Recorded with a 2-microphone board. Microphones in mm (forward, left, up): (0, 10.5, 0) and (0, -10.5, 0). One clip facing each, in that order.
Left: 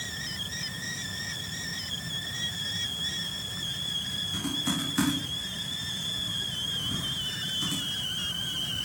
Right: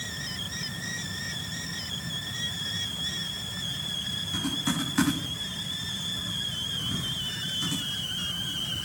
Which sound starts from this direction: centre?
Typing on a keyboard, at 4.3 s.